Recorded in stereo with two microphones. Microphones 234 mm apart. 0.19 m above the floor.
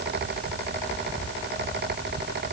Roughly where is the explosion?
No explosion in this recording.